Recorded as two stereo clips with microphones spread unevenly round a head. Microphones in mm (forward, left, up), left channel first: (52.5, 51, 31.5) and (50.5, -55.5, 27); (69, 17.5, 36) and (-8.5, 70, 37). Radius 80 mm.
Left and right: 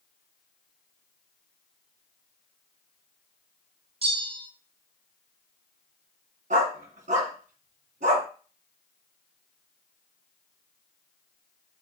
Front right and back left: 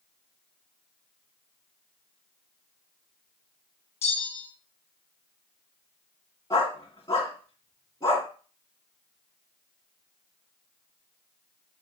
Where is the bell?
70° right, 2.5 m.